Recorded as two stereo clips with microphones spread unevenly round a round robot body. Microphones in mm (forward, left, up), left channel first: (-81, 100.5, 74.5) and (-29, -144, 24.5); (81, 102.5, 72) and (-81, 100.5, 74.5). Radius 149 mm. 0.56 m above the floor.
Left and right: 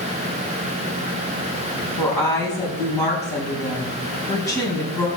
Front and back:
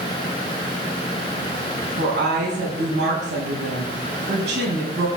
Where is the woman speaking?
Straight behind, 5 m.